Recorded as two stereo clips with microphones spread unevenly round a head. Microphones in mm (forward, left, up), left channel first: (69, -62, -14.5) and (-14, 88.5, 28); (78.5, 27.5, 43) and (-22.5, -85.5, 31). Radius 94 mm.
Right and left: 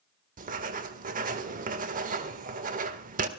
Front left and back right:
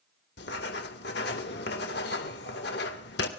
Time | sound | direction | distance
0.4 | writing | 80° left | 1.8 m